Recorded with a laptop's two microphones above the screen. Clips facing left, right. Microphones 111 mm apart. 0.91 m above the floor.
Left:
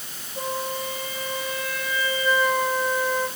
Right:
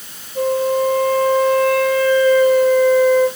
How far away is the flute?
About 3.5 m.